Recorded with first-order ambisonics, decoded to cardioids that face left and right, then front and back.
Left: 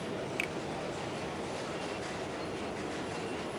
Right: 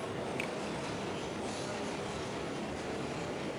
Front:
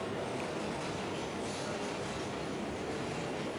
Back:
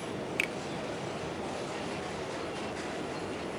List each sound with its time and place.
0.4 s a finger snap: 160° left